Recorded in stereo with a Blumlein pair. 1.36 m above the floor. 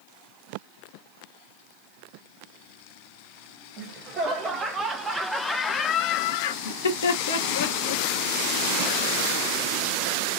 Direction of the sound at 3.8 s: 30° right.